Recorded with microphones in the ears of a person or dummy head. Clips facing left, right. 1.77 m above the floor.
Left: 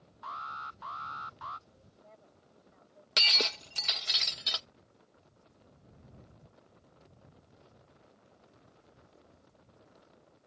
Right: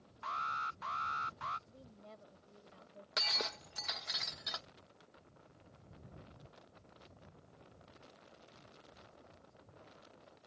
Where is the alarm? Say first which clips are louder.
Right 1 dB; 30° right (ahead or behind).